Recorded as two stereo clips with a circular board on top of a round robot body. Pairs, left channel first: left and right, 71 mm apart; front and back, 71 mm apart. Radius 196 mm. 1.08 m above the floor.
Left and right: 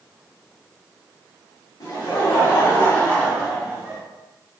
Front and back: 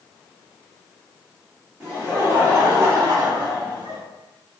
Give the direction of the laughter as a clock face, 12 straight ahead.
9 o'clock.